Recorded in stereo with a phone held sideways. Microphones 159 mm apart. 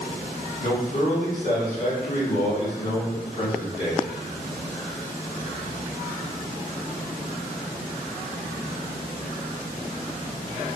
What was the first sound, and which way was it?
A man speaking, 40° left (ahead or behind).